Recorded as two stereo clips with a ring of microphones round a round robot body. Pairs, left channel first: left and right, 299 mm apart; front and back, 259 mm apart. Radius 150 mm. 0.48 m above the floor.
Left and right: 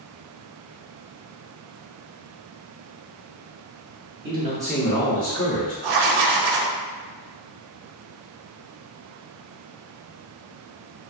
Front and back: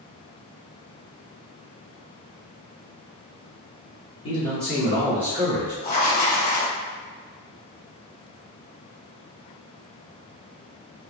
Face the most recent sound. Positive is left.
turn(degrees=-70)